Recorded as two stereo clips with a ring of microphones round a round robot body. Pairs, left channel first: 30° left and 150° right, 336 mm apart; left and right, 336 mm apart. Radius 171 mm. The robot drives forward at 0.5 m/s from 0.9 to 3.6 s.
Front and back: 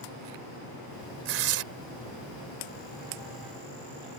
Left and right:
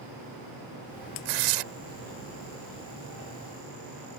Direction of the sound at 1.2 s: 95° right.